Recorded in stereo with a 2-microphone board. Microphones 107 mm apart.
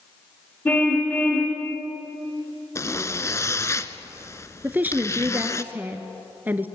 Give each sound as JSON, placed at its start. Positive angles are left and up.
{"t": 0.7, "sound": "a car horn", "side_deg": 15, "distance_m": 5.0}
{"t": 2.8, "sound": "a zipper", "side_deg": 25, "distance_m": 0.9}
{"t": 4.6, "sound": "a woman speaking", "side_deg": -15, "distance_m": 1.3}